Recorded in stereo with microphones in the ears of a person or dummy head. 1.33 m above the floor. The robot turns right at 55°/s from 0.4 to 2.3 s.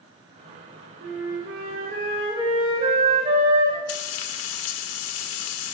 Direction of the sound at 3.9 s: 80° left.